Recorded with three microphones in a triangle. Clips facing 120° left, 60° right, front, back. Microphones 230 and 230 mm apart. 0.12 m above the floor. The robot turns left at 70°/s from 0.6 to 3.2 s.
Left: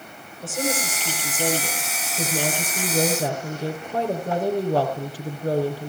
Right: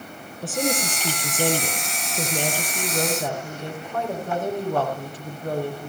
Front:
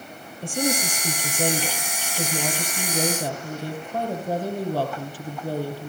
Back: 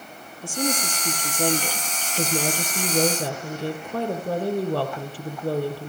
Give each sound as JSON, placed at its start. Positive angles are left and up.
{"t": 0.4, "sound": "a woman speaking", "azimuth_deg": 0, "distance_m": 4.0}